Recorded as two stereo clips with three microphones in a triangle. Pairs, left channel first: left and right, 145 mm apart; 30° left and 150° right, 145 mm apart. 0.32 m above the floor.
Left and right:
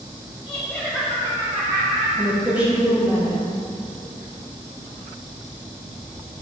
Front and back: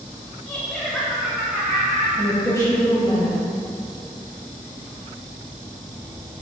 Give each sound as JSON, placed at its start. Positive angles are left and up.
{"t": 0.5, "sound": "laughter", "azimuth_deg": 105, "distance_m": 1.1}
{"t": 2.2, "sound": "a woman speaking", "azimuth_deg": -20, "distance_m": 1.3}